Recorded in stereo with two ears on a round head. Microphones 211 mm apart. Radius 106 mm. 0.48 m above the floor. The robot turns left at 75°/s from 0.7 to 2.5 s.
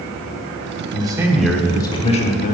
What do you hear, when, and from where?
0.9 s a man speaking: 140° right, 1.1 m; by 2.5 s 100° left, 1.1 m